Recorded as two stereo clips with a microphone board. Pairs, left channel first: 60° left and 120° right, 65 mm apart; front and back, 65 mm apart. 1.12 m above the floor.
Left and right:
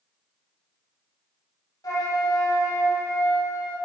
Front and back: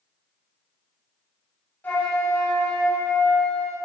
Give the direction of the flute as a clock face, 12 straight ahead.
10 o'clock.